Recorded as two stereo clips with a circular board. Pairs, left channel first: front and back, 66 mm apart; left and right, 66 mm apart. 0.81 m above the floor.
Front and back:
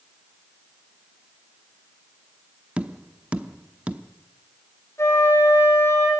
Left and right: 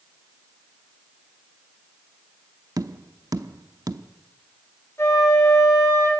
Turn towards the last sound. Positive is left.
turn(degrees=45)